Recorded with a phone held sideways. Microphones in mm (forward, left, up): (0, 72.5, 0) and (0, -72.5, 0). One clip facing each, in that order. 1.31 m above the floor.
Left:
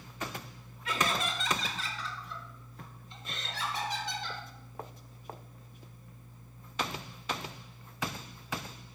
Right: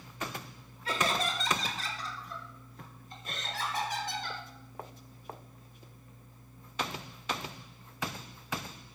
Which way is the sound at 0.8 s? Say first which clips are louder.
Right 1 dB; 35° right (ahead or behind).